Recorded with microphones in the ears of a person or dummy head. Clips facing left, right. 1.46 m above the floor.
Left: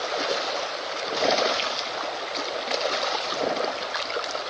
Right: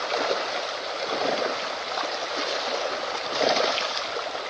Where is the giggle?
I don't hear a giggle.